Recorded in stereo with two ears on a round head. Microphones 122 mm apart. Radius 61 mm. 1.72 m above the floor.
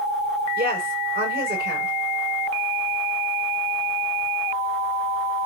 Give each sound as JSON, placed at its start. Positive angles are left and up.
{"t": 0.6, "sound": "a woman speaking", "side_deg": -85, "distance_m": 7.5}